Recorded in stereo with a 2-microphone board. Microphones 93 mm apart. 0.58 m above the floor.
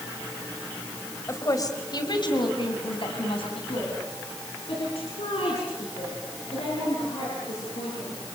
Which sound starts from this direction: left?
A woman speaking, at 1.3 s.